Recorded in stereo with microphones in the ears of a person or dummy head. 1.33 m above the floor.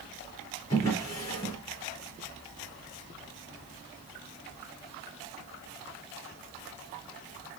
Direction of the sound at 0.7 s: 20° left (ahead or behind).